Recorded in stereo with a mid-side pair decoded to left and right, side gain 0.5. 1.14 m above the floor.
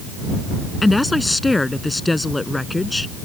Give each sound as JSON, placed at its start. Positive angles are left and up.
{"t": 0.8, "sound": "a woman speaking", "azimuth_deg": 15}